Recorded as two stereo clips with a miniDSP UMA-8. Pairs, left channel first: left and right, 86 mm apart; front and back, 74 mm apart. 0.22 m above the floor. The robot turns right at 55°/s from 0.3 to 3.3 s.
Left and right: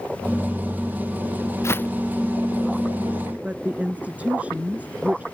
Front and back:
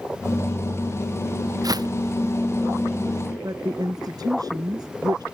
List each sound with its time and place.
1.6 s footsteps: 145° left; by 1.9 s 160° left
3.4 s a woman speaking: 160° right